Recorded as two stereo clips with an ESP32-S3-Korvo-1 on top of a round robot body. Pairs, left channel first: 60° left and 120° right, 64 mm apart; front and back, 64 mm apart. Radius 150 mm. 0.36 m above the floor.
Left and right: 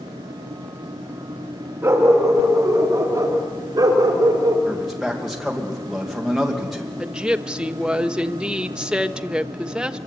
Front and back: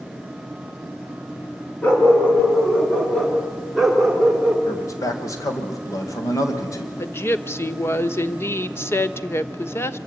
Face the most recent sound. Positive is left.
turn(degrees=-45)